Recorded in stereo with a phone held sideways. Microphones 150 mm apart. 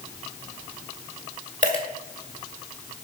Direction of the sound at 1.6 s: 55° right (ahead or behind).